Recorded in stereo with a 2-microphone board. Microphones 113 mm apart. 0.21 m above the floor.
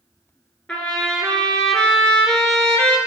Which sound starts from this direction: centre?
A trumpet, at 0.7 s.